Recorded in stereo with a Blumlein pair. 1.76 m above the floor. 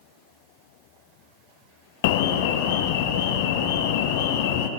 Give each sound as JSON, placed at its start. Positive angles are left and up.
{"t": 2.0, "sound": "an alarm", "azimuth_deg": 50, "distance_m": 0.5}